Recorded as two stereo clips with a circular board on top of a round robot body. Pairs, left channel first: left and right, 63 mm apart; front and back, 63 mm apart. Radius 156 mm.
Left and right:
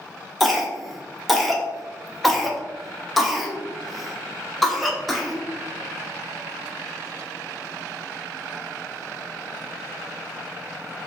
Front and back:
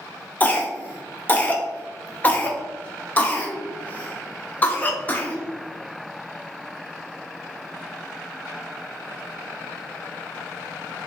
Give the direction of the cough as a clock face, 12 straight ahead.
12 o'clock.